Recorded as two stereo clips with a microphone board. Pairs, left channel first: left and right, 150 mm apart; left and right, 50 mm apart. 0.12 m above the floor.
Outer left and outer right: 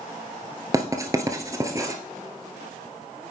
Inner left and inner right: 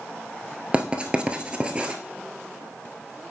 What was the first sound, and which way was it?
Writing, 25° right (ahead or behind).